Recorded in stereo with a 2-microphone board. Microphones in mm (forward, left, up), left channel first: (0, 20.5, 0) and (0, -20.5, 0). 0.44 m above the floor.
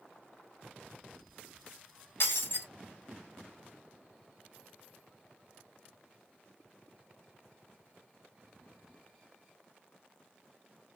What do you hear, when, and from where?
2.2 s breaking glass: 65° left (ahead or behind), 1.4 m